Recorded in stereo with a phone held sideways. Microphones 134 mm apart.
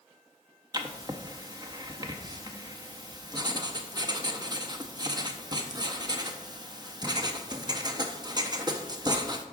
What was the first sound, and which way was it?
Writing, 30° right (ahead or behind).